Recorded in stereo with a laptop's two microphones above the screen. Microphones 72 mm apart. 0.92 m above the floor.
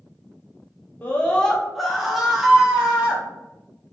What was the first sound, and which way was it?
A scream, 25° left (ahead or behind).